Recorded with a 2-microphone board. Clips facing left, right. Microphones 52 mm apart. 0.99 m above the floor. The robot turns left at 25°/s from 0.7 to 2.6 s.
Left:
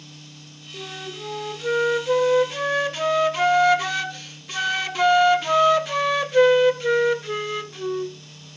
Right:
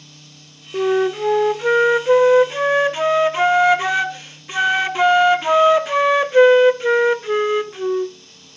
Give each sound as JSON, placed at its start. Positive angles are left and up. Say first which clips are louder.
{"t": 0.7, "sound": "a flute", "louder": "right 18 dB", "azimuth_deg": -105, "distance_m": 0.5}